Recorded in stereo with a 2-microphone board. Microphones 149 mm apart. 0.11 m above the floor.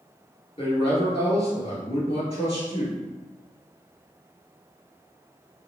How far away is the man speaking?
About 1.8 m.